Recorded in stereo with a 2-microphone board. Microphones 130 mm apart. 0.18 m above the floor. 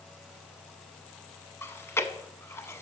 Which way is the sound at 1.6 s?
20° left (ahead or behind).